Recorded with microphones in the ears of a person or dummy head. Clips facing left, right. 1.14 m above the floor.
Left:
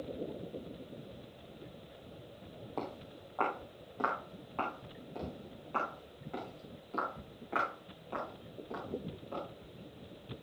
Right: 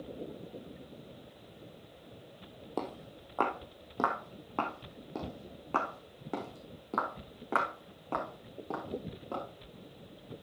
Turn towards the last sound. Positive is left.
turn(degrees=-70)  # may be behind; listen again after turning